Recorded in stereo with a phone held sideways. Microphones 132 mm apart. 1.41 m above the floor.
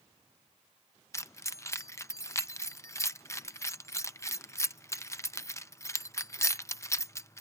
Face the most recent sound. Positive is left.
turn(degrees=25)  # may be behind; listen again after turning